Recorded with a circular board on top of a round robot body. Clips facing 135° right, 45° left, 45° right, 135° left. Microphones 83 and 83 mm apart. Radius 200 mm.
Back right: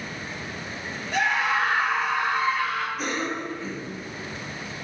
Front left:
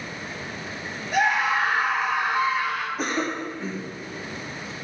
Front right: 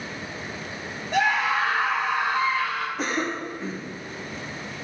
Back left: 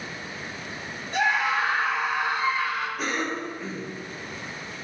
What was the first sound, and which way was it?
A scream, 40° right.